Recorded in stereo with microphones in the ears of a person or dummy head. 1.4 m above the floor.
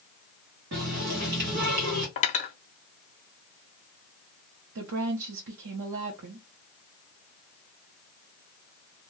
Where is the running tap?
55° right (ahead or behind), 1.0 m.